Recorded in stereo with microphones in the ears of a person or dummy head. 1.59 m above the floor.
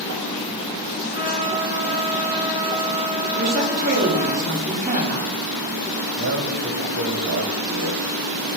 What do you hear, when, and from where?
1.1 s a trumpet: 45° left (ahead or behind), 1.5 m
3.4 s a woman speaking: 45° right (ahead or behind), 1.2 m
6.2 s a man speaking: 75° right (ahead or behind), 0.8 m